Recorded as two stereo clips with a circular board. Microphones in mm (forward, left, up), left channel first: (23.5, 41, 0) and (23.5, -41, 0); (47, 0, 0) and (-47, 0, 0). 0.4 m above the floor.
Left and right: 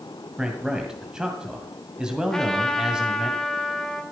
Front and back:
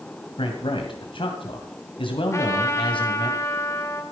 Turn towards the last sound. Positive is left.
turn(degrees=10)